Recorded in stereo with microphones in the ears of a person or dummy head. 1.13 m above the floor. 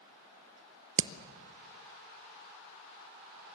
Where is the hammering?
60° right (ahead or behind), 0.7 m.